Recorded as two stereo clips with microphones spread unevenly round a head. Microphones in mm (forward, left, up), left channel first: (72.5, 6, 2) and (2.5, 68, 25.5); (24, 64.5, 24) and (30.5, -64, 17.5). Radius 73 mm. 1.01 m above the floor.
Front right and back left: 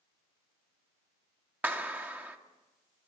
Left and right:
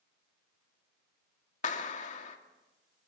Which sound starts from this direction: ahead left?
A clap, at 1.6 s.